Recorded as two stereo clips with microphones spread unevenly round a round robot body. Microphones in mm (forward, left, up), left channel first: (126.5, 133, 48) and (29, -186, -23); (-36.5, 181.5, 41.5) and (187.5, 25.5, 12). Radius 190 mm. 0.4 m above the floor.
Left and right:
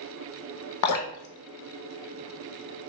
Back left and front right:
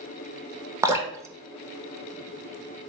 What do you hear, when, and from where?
0.8 s dripping: 50° left, 0.6 m